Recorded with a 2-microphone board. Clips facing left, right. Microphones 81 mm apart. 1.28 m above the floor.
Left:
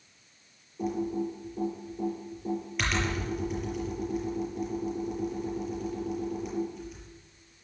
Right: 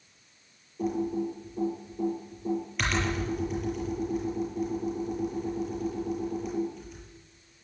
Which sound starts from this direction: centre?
Typing on a keyboard, at 0.8 s.